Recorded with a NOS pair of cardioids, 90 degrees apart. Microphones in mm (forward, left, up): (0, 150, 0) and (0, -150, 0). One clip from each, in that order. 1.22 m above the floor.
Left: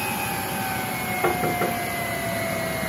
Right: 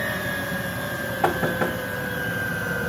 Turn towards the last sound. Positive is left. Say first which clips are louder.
# right 1 dB
turn(degrees=-15)